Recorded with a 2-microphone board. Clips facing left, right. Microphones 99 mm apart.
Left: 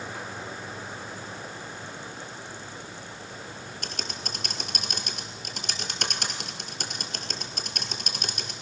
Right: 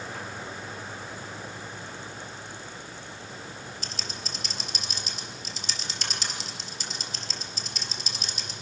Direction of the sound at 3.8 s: 55° left (ahead or behind).